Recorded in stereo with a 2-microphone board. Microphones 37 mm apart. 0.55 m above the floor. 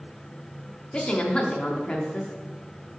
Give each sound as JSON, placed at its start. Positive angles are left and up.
{"t": 0.9, "sound": "a woman speaking", "side_deg": 25, "distance_m": 0.8}